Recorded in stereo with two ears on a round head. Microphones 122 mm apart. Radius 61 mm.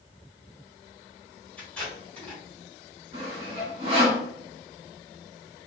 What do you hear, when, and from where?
1.6 s tape being pulled: 10° left (ahead or behind), 1.6 m
3.1 s sawing: 40° right (ahead or behind), 1.4 m